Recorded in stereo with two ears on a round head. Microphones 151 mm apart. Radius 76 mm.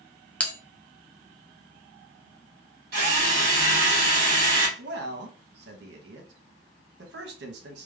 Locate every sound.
0.4 s a bell: 10° left (ahead or behind), 0.6 m
2.9 s a drill: 60° right (ahead or behind), 1.3 m
4.8 s a man speaking: 70° right (ahead or behind), 0.9 m